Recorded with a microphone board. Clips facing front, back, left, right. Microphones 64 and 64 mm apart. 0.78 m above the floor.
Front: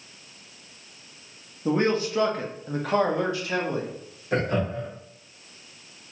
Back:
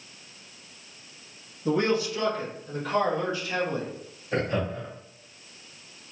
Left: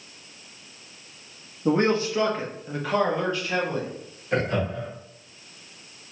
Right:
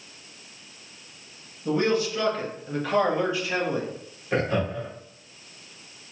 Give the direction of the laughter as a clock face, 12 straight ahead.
12 o'clock.